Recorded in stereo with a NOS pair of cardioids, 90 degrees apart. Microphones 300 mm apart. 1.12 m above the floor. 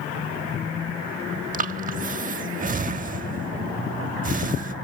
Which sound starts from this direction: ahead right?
Breathing, at 1.5 s.